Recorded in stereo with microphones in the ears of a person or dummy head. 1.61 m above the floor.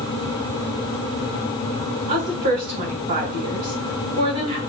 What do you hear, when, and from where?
2.1 s a woman speaking: 55° right (ahead or behind), 3 m